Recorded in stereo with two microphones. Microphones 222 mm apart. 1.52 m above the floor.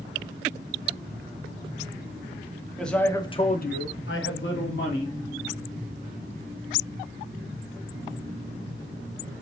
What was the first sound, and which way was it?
A man speaking, centre (ahead or behind).